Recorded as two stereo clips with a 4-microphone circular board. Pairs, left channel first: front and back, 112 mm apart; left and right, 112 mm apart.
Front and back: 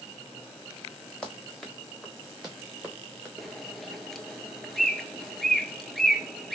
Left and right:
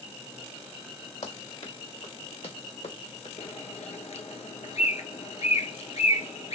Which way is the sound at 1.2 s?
80° left.